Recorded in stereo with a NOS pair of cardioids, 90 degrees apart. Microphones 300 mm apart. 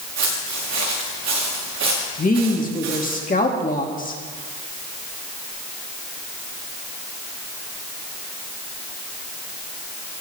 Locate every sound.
0.2 s footsteps: 70° right, 5.5 m
2.2 s a woman speaking: 30° left, 2 m